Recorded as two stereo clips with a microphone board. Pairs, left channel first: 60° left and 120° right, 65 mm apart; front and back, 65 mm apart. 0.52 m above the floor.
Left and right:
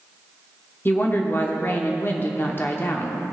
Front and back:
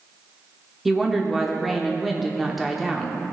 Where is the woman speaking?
90° left, 0.8 m.